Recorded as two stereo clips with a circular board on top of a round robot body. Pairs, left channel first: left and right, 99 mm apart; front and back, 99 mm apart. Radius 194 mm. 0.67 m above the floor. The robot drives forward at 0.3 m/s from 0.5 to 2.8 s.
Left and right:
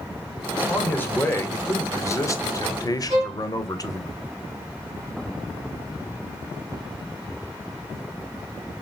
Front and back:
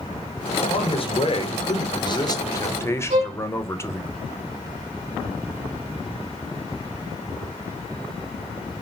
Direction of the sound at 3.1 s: 175° right.